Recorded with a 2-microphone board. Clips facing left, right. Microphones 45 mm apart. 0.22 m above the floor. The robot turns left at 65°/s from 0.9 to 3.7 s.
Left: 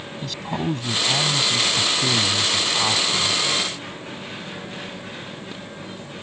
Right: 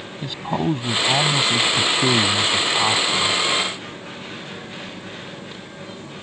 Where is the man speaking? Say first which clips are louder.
Right 4 dB; 30° right; by 3.4 s 165° left.